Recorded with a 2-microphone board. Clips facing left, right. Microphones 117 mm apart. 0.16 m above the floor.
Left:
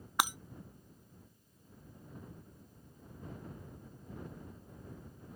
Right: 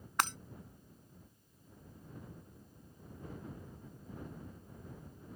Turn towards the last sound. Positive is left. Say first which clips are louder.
# left 1 dB
turn(degrees=10)  # may be behind; listen again after turning